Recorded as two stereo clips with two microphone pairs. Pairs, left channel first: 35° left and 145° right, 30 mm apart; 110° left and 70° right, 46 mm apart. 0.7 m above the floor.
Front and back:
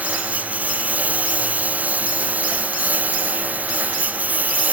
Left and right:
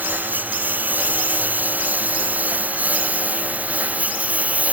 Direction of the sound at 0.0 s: 120° right.